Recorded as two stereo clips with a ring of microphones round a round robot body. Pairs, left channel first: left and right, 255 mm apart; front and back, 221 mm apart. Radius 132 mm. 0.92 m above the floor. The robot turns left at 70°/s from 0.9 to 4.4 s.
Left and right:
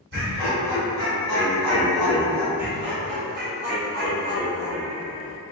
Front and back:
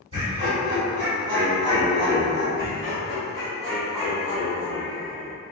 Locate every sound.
0.1 s laughter: 120° right, 1.4 m; by 2.5 s 130° left, 1.4 m
2.6 s laughter: 10° right, 0.7 m; by 5.4 s 140° right, 0.7 m